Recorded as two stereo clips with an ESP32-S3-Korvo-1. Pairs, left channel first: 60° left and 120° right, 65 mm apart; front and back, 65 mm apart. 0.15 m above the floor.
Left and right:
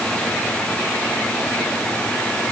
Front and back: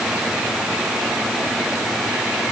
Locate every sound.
Only background noise.